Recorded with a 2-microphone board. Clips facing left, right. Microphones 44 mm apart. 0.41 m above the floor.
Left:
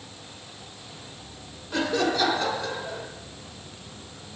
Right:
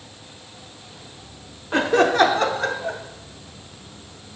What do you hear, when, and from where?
1.7 s laughter: 40° right (ahead or behind), 1.0 m; by 3.0 s 65° right (ahead or behind), 2 m